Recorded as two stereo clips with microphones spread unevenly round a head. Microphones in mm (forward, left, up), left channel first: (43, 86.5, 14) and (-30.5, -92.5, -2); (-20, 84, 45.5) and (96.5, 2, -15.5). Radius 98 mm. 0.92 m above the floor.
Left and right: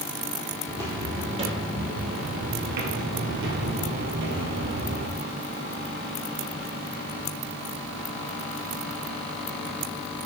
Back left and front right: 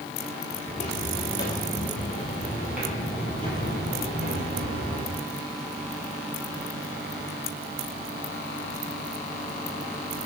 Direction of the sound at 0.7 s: 170° left.